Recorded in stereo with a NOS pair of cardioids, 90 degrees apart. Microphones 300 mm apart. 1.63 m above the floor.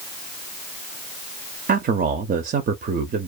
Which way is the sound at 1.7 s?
30° right.